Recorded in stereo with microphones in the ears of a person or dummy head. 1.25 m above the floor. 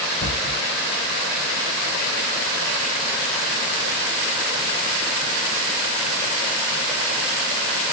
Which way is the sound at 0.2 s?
25° left (ahead or behind).